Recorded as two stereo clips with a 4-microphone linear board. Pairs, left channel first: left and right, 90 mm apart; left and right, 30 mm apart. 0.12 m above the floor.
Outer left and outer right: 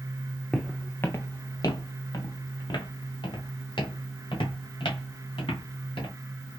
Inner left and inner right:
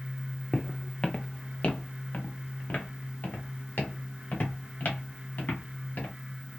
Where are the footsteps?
5° left (ahead or behind), 0.5 m; by 6.1 s 65° left (ahead or behind), 3 m.